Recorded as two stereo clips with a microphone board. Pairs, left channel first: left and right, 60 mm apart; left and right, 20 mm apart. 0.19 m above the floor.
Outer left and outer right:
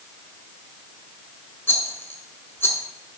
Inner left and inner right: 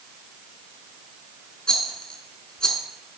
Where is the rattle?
40° left (ahead or behind), 1.0 m.